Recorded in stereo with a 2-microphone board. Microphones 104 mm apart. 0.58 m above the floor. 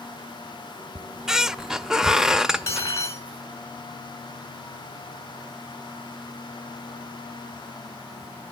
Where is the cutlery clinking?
30° left (ahead or behind), 3.5 m.